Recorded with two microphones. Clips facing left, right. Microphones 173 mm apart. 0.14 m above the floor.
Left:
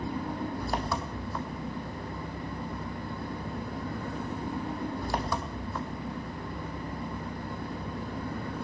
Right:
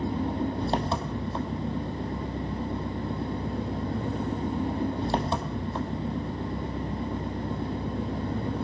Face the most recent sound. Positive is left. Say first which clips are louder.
# right 5 dB
turn(degrees=-25)  # may be behind; listen again after turning